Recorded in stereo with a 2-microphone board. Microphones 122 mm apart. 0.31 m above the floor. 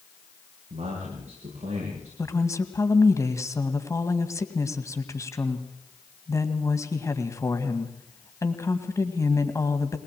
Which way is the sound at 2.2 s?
25° left (ahead or behind).